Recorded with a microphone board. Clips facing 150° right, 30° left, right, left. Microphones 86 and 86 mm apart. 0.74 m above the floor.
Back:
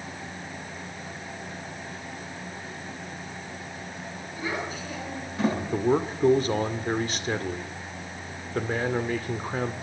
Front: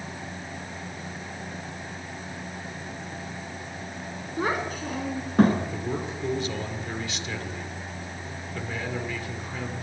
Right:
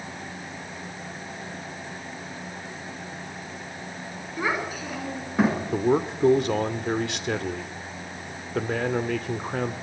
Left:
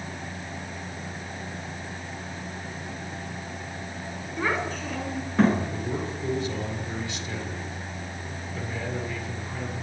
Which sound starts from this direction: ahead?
A child speaking, at 4.4 s.